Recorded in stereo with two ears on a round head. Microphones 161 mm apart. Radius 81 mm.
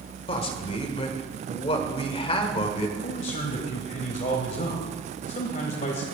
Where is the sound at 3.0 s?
40° left (ahead or behind), 1.9 m.